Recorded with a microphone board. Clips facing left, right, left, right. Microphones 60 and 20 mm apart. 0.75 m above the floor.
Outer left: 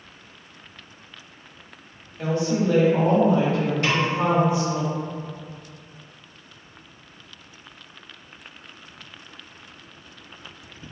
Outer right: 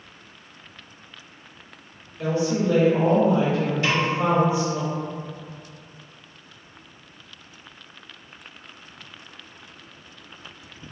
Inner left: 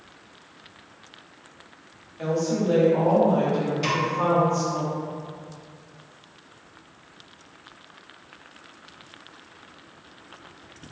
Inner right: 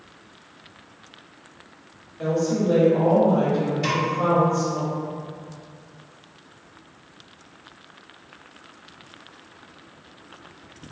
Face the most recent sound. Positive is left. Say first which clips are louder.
# even, even
turn(degrees=50)  # may be behind; listen again after turning